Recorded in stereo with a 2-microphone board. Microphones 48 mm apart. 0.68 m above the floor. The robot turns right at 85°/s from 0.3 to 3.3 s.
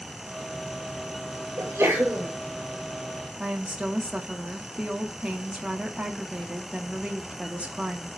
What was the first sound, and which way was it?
A sneeze, 95° right.